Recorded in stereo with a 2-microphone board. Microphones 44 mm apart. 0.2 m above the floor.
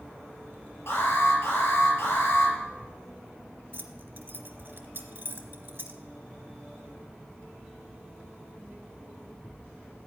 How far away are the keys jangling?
About 1.7 m.